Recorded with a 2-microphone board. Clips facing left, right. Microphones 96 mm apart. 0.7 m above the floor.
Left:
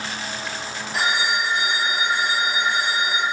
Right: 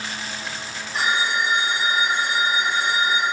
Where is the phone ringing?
85° left, 2.5 m.